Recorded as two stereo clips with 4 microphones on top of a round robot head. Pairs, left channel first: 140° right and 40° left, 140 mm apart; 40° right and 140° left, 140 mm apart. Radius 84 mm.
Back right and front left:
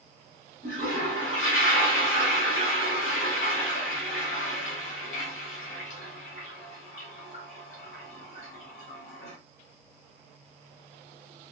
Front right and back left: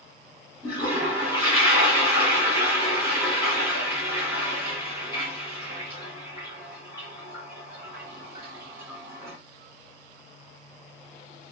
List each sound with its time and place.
0.6 s a toilet flushing: 150° right, 1.3 m